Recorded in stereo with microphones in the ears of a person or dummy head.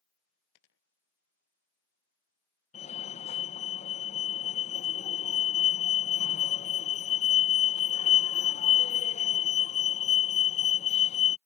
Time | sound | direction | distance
0.6 | a dropped coin | 75° left (ahead or behind) | ?
2.7 | a fire alarm | 40° left (ahead or behind) | ?